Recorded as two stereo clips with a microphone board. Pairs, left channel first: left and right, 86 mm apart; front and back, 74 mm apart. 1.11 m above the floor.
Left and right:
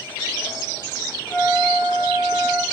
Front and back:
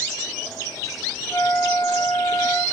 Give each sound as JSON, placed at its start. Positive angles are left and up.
{"t": 1.3, "sound": "a flute", "azimuth_deg": 20, "distance_m": 1.0}